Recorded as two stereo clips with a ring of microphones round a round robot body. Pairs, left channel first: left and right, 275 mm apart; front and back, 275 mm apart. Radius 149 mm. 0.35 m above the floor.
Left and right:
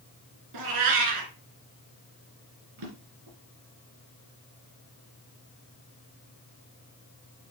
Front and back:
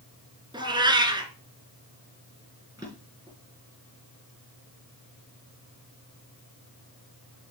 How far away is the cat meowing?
About 2.0 m.